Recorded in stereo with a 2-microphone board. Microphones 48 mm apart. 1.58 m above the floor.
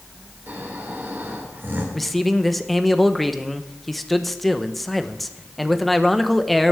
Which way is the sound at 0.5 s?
45° right (ahead or behind).